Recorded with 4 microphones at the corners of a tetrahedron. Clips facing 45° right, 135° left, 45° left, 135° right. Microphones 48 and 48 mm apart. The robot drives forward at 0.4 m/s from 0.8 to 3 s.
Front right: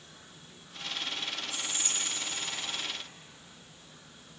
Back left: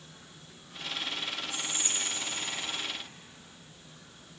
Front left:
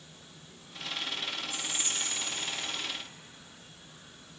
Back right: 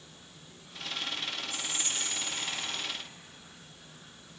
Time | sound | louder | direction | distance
1.5 | whispering | back left 1 dB, even | 175° right | 4 m